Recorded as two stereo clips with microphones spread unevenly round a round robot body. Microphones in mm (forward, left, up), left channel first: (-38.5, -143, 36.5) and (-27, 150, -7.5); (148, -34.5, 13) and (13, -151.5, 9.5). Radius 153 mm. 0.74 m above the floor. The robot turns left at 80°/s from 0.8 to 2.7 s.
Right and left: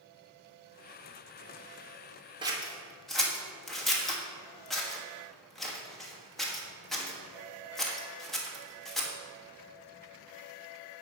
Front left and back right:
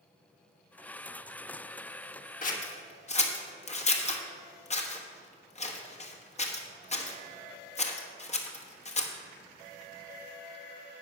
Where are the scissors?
30° left, 1.3 m; by 9.1 s 5° left, 1.3 m.